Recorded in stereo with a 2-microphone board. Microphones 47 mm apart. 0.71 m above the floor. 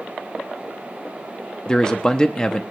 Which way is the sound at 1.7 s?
20° left (ahead or behind).